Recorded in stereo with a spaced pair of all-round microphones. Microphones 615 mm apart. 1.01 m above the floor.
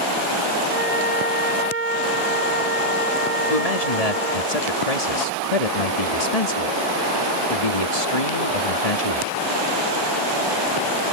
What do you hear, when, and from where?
0.7 s a flute: 80° right
3.5 s a man speaking: 75° left (ahead or behind)